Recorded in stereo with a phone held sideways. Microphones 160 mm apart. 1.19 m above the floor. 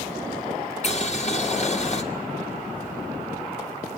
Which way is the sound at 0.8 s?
45° left (ahead or behind).